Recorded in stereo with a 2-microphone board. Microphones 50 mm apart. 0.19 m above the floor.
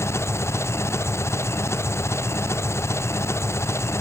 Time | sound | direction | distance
0.0 | an engine running | 65° left (ahead or behind) | ?